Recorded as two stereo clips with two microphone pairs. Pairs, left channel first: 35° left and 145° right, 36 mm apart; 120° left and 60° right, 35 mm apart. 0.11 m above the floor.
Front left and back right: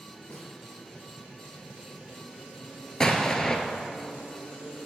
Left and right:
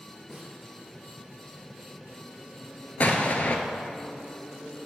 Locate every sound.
0.3 s a snare drum: 35° left, 2 m
3.0 s an explosion: 105° left, 0.8 m